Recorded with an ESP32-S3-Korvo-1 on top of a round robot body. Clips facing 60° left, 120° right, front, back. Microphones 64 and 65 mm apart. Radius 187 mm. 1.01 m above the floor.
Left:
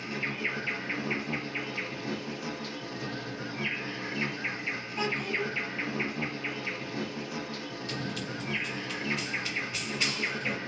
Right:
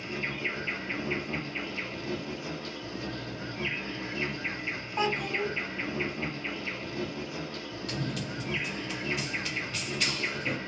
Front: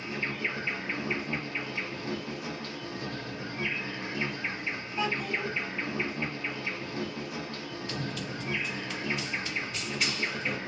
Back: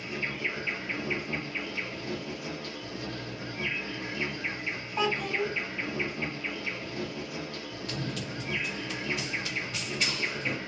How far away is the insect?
About 1.2 m.